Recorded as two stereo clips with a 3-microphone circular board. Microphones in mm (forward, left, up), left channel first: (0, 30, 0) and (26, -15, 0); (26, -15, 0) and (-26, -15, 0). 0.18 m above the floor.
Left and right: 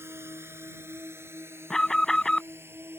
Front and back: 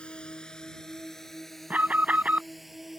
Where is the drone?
65° right; by 3.0 s 90° right.